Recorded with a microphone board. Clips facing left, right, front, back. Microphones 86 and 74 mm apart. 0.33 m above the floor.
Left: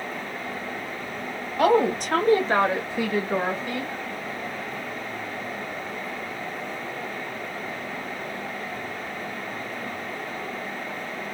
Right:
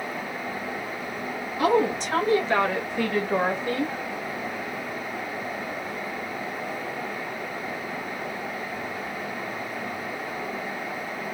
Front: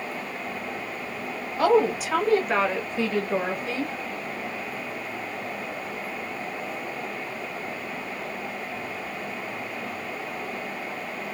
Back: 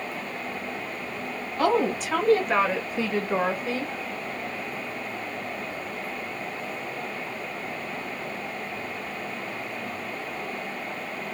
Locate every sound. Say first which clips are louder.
1.6 s a woman speaking: left 2 dB, front 3 dB; 75° left, 1.6 m; by 3.9 s 135° right, 1.1 m